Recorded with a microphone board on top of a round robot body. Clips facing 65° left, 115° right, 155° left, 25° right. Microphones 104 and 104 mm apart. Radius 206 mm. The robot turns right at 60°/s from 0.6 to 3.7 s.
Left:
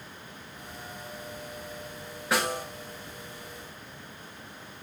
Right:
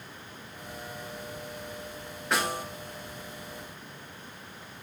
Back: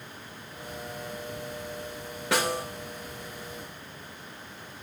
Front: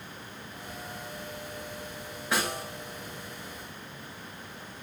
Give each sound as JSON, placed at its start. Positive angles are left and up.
{"t": 2.3, "sound": "a snare drum", "azimuth_deg": 155, "distance_m": 3.5}